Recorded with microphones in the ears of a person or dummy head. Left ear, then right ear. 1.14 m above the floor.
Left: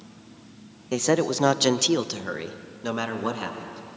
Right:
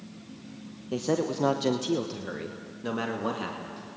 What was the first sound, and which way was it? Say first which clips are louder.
A man speaking: left 5 dB; 55° left (ahead or behind).